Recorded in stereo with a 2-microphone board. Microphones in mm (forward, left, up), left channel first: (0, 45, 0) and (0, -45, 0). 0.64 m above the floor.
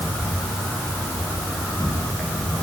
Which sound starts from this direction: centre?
An insect, at 0.0 s.